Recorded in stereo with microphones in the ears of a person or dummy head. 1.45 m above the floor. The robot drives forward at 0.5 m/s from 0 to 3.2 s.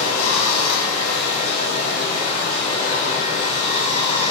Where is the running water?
90° left, 1.5 m; by 4.3 s 45° left (ahead or behind), 2 m.